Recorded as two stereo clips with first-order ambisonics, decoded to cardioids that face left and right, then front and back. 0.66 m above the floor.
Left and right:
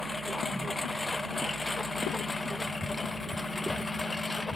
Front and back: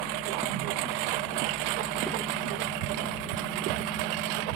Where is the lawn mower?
170° left.